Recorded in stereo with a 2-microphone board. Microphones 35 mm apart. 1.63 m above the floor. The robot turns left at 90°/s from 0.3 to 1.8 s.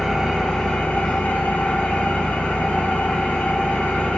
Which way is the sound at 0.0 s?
Straight behind.